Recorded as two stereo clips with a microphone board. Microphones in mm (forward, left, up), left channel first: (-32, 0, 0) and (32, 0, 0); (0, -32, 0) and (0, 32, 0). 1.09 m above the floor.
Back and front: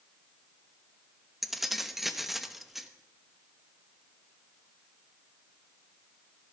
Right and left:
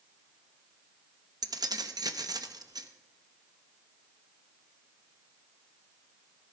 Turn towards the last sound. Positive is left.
turn(degrees=85)